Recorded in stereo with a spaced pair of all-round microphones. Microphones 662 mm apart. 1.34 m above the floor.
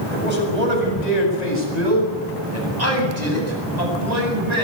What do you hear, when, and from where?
0.1 s a man speaking: 75° right (ahead or behind), 7 m